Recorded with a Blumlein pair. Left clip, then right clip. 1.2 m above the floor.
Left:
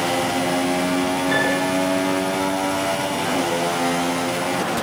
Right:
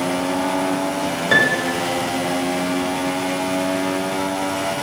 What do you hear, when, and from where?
1.3 s a piano: 65° right, 5 m